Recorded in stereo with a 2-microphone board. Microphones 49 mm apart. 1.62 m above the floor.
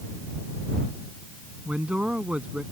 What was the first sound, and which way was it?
A man speaking, 25° right (ahead or behind).